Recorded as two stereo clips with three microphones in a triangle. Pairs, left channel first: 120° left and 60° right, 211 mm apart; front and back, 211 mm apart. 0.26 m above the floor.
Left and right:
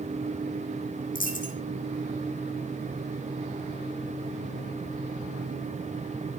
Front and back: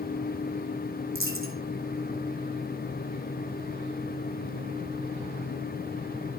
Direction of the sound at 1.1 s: 170° left.